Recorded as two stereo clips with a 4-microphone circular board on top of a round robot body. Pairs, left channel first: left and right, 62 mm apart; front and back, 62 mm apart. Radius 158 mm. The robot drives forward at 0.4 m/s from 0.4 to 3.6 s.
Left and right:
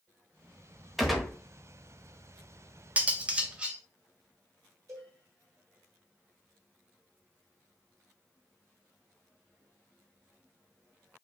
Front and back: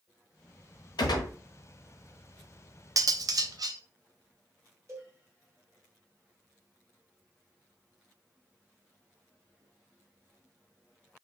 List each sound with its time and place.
1.0 s a gunshot: straight ahead, 1.0 m; by 1.3 s 5° right, 0.8 m
3.0 s cutlery clinking: 155° right, 0.6 m; by 3.8 s 165° right, 0.8 m
4.9 s a cowbell: 130° right, 2.5 m